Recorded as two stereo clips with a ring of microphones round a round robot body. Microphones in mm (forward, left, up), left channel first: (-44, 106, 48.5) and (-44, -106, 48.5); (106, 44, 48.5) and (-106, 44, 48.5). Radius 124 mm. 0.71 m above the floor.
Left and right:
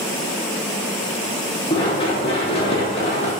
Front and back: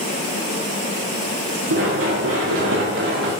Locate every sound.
1.7 s running footsteps: 155° left, 7 m; by 3.3 s 150° left, 6.5 m